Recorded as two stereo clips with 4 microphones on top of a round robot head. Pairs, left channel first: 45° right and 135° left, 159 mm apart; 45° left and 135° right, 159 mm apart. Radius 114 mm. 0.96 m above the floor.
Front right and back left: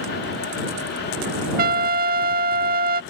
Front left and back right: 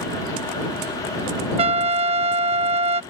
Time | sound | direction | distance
1.6 | a trumpet | 170° left | ?